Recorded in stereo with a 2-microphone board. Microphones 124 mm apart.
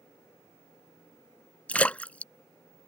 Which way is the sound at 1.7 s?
10° left (ahead or behind).